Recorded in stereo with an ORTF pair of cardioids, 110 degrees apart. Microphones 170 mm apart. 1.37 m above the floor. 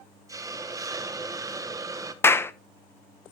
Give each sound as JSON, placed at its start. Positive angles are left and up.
{"t": 0.3, "sound": "a hiss", "azimuth_deg": -20, "distance_m": 1.2}
{"t": 2.2, "sound": "a clap", "azimuth_deg": 15, "distance_m": 0.7}